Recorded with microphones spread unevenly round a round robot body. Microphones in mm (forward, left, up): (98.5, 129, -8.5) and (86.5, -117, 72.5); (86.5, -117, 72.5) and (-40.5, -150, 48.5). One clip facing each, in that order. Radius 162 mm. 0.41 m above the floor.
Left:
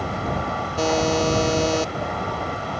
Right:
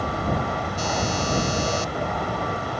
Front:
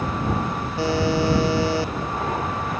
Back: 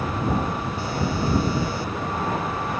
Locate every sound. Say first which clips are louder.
0.8 s a buzzer: left 9 dB, front 8 dB; 65° left